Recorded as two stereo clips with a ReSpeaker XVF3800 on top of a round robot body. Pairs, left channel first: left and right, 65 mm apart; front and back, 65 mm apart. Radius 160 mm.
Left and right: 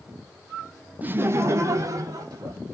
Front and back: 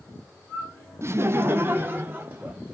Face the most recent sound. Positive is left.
turn(degrees=-125)